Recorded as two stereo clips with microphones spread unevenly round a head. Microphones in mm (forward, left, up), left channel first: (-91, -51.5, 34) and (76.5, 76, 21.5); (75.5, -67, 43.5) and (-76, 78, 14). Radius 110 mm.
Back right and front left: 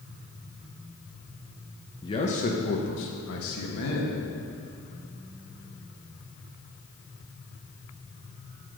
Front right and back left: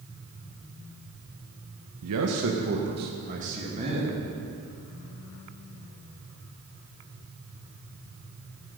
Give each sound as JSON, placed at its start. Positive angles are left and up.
{"t": 2.0, "sound": "a man speaking", "azimuth_deg": 145, "distance_m": 0.8}